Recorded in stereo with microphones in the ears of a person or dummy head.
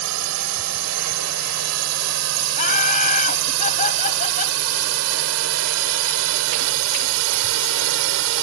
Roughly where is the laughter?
Left.